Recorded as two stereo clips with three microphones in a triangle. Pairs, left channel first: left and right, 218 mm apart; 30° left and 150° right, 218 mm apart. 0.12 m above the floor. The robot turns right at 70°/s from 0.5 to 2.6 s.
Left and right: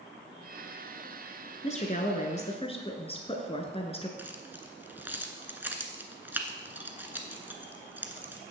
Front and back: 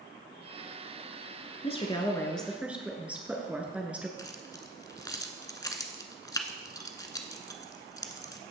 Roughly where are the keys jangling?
Ahead.